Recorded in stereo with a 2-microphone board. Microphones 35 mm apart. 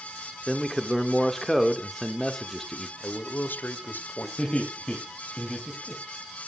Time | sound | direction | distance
0.5 | a man speaking | 10° left (ahead or behind) | 1.4 m
3.0 | a man speaking | 60° left (ahead or behind) | 1.7 m
4.4 | laughter | 25° left (ahead or behind) | 2.5 m